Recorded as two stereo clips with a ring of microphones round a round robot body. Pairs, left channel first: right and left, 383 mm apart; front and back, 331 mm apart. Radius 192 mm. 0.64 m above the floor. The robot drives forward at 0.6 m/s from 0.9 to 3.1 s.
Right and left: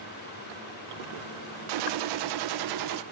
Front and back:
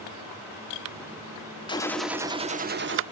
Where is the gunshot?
75° left, 0.9 m; by 3.0 s 130° left, 1.1 m.